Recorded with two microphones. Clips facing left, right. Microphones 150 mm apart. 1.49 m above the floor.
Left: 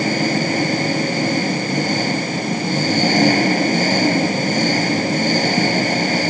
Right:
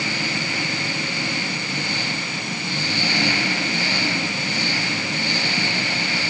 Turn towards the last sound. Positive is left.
turn(degrees=45)  # may be behind; listen again after turning